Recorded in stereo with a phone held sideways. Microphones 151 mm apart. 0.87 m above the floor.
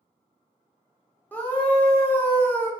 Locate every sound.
1.3 s a scream: 10° left (ahead or behind), 0.6 m